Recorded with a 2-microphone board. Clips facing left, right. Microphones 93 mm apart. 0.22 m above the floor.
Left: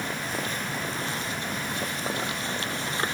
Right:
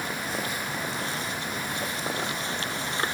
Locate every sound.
Only background noise.